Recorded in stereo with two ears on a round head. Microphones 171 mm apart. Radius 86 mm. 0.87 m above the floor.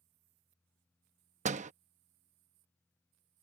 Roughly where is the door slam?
Right.